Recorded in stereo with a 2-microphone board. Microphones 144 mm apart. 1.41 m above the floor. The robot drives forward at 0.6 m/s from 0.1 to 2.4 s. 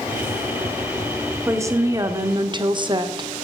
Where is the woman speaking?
20° right (ahead or behind), 1.1 m; by 3.3 s 35° right (ahead or behind), 0.6 m.